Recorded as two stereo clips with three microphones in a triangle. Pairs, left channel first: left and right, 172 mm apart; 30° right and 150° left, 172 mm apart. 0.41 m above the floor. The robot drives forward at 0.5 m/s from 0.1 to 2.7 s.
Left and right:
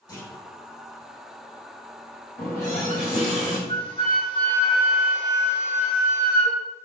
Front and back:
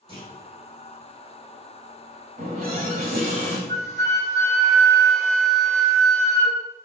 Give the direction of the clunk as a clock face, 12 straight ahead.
8 o'clock.